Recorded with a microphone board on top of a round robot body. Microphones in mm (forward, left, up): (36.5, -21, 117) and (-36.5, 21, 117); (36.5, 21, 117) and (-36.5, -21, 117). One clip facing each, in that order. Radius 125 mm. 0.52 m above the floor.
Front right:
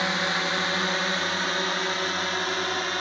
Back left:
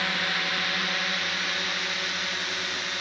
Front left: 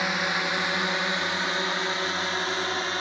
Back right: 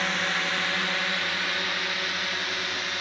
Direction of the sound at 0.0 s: 25° right.